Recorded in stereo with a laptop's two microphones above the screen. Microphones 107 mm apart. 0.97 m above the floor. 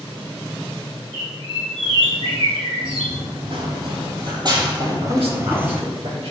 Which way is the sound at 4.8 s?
60° right (ahead or behind).